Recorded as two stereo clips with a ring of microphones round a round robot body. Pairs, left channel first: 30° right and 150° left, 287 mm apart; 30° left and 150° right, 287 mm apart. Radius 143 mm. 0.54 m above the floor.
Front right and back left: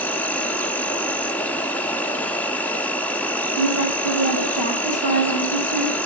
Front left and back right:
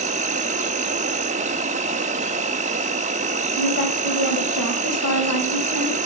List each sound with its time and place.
0.0 s an insect: 110° right, 0.7 m
3.6 s a woman speaking: 10° right, 3 m